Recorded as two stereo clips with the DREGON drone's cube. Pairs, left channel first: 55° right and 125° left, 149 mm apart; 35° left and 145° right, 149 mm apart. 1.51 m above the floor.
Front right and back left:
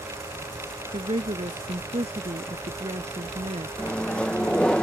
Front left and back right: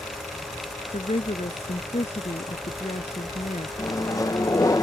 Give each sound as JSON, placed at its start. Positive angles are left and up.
{"t": 0.9, "sound": "a woman speaking", "azimuth_deg": 80}
{"t": 3.8, "sound": "a microwave", "azimuth_deg": 15}